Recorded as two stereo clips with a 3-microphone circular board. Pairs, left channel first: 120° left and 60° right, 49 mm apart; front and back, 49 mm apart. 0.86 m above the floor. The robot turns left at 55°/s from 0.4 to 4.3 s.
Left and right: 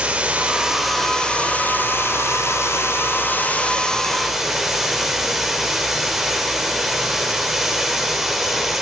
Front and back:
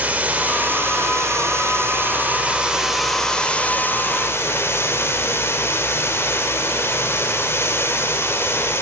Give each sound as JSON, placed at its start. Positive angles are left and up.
{"t": 0.0, "sound": "running water", "azimuth_deg": -120, "distance_m": 3.5}